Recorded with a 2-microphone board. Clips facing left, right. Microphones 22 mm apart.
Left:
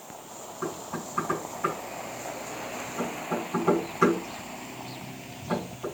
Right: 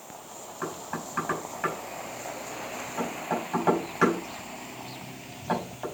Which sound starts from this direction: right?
Knocking, at 0.6 s.